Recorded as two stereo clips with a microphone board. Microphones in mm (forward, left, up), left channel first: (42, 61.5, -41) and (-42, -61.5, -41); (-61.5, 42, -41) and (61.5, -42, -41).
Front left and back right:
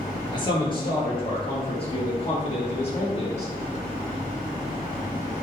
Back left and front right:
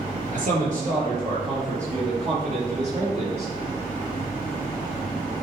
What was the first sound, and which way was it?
A man speaking, 5° right.